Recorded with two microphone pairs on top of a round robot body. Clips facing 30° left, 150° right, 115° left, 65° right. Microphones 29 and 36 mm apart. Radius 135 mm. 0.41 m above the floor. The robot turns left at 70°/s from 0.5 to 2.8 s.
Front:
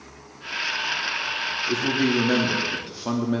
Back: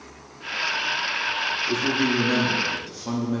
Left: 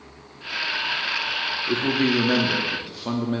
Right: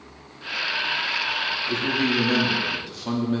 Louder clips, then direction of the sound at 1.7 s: Front 2 dB, left 3 dB; 120° left.